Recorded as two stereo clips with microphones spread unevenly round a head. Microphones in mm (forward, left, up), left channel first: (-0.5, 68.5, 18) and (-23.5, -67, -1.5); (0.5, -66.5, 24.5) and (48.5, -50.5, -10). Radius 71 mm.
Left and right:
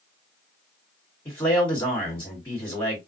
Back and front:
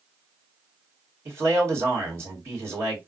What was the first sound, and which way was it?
A man speaking, 5° left.